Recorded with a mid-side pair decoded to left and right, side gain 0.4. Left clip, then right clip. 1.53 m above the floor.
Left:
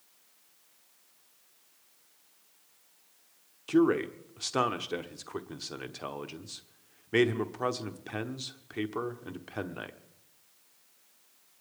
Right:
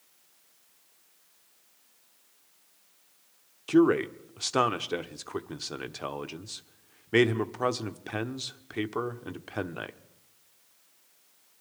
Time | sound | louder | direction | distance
3.7 | a man speaking | right 3 dB | 20° right | 1.1 m